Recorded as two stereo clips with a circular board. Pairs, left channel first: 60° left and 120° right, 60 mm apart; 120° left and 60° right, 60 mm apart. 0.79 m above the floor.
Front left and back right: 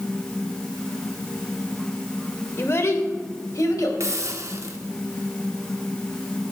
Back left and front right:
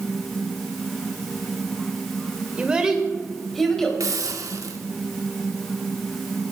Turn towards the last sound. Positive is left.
turn(degrees=-85)